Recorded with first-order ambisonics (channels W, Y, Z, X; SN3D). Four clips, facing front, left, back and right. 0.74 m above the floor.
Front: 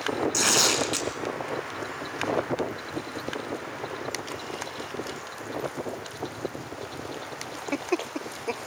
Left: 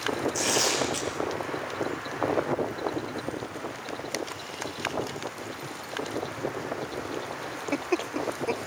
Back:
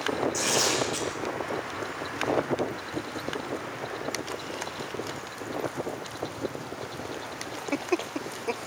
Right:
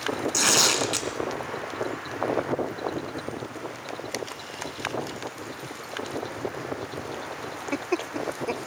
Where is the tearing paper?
55° right, 2.5 m.